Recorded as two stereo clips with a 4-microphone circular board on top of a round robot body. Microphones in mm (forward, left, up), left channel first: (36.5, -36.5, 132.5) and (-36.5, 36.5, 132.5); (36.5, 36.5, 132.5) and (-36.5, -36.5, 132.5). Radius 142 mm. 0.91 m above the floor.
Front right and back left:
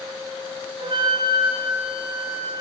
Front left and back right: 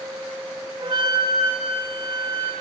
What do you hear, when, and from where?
0.8 s a flute: straight behind, 10 m